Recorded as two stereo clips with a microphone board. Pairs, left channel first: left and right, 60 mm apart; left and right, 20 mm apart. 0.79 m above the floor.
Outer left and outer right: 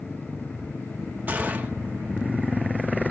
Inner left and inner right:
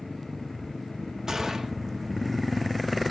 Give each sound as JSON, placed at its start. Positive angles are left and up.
{"t": 1.3, "sound": "a gunshot", "side_deg": -30, "distance_m": 1.3}